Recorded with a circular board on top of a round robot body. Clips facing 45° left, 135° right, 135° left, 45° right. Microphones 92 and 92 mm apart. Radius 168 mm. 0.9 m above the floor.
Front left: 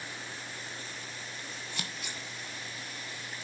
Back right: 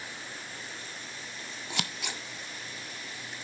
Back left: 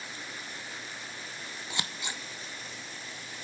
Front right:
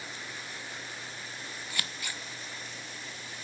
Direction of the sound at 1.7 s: 155° right.